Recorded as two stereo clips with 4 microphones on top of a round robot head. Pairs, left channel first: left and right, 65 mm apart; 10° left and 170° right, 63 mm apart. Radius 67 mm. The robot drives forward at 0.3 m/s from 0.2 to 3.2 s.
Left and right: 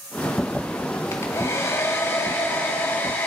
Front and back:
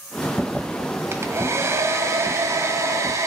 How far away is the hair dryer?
About 2 m.